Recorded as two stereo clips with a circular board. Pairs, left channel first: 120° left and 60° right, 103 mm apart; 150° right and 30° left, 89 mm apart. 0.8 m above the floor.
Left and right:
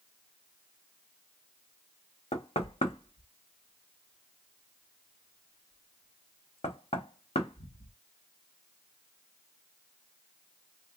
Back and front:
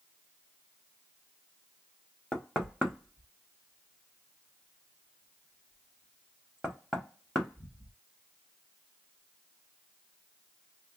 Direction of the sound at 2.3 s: 120° left.